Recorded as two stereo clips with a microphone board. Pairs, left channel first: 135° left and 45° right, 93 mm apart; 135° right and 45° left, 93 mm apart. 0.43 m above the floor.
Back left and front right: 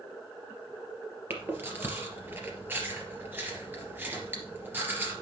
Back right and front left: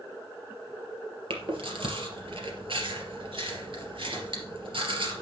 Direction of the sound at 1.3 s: 25° left.